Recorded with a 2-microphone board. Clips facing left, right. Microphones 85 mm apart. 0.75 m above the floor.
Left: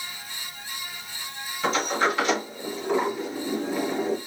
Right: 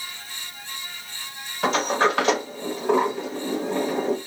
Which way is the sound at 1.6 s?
75° right (ahead or behind).